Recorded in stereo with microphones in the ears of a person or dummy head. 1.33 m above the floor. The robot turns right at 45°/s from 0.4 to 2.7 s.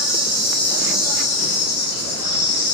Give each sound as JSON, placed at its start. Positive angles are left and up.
{"t": 0.0, "sound": "an insect", "azimuth_deg": -5, "distance_m": 1.1}